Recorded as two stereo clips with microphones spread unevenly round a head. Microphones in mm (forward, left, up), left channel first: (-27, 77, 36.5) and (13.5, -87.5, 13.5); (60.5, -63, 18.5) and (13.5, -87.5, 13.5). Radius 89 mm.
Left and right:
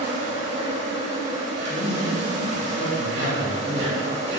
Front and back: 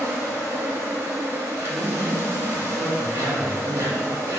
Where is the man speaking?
95° left, 1.7 m.